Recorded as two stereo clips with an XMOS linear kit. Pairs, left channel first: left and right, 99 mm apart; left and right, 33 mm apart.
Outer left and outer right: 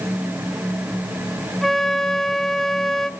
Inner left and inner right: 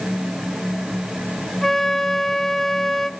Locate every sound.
1.6 s a flute: 5° left (ahead or behind), 0.9 m